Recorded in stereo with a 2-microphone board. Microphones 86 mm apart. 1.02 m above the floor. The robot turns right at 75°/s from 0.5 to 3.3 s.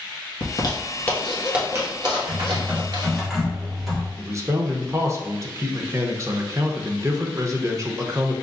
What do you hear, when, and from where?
0.4 s a zipper: 60° left (ahead or behind), 1.2 m; by 3.3 s 35° right (ahead or behind), 1.2 m
2.3 s typing on a keyboard: 75° right, 1.5 m; by 4.1 s straight ahead, 1.5 m
4.2 s a man speaking: 35° right (ahead or behind), 0.7 m